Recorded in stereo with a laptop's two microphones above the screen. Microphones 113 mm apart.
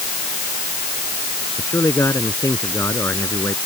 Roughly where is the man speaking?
Left.